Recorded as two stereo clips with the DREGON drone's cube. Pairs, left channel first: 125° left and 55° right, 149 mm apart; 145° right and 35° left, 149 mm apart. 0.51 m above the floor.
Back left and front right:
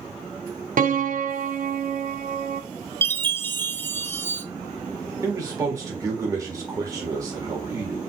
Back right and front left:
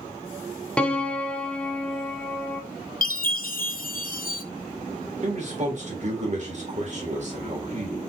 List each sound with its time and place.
0.8 s a piano: 65° right, 0.7 m
3.0 s a chime: 160° right, 0.6 m
5.2 s a man speaking: 10° left, 1.5 m